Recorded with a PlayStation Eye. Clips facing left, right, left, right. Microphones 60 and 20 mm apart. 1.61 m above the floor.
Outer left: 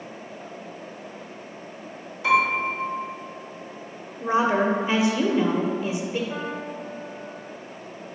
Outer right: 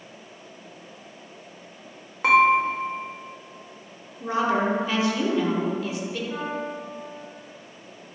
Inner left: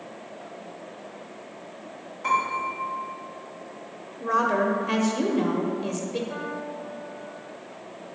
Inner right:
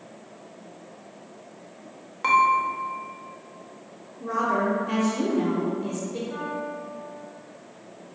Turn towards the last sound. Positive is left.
turn(degrees=20)  # may be behind; listen again after turning